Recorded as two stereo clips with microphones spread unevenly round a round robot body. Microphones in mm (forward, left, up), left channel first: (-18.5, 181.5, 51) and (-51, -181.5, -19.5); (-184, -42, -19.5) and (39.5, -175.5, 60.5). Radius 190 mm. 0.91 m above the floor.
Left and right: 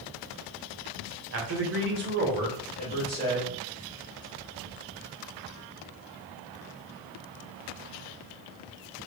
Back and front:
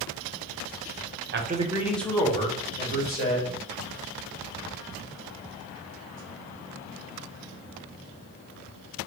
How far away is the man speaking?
About 0.7 m.